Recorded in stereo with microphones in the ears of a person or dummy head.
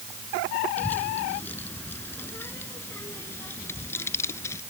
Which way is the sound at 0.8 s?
10° left (ahead or behind).